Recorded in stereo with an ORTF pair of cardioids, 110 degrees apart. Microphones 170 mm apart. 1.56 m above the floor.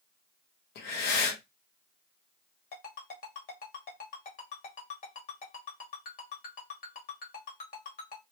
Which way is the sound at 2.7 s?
60° left.